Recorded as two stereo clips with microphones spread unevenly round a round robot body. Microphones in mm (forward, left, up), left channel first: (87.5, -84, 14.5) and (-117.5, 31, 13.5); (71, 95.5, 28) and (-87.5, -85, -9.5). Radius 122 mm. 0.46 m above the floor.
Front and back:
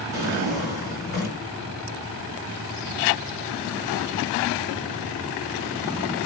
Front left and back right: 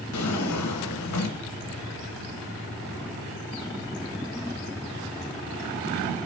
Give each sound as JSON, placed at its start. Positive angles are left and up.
{"t": 0.1, "sound": "a drawer", "azimuth_deg": 25, "distance_m": 2.5}